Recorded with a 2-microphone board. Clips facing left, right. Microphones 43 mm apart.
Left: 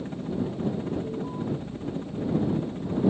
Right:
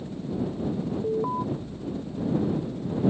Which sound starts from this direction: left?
A helicopter, at 0.0 s.